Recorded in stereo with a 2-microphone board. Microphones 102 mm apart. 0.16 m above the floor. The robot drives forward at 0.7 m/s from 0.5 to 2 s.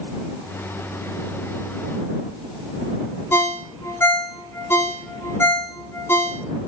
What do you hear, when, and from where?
3.3 s a ringtone: 25° left (ahead or behind), 0.6 m